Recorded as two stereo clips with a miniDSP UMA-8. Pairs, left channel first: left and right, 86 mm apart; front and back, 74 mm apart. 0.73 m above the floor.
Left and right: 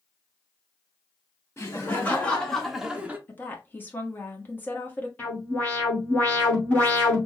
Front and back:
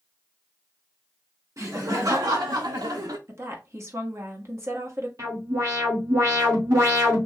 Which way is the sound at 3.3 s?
150° left.